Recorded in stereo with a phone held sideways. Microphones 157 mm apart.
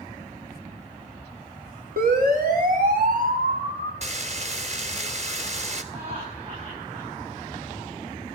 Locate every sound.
2.0 s a siren: 70° right (ahead or behind), 3.5 m; by 3.9 s 65° right (ahead or behind), 5.5 m
4.0 s frying: 50° right (ahead or behind), 2 m
5.9 s laughter: 35° right (ahead or behind), 9 m